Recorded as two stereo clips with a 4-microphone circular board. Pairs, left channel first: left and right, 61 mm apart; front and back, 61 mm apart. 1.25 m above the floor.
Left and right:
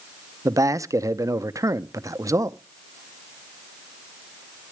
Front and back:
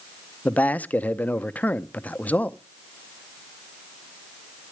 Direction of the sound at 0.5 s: 65° right.